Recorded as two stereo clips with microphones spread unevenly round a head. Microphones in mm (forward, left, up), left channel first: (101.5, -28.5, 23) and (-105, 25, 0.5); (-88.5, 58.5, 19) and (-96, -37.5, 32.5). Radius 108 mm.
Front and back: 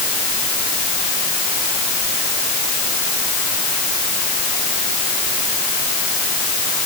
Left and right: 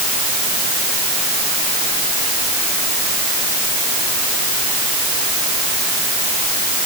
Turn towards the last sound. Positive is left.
No sound to turn to.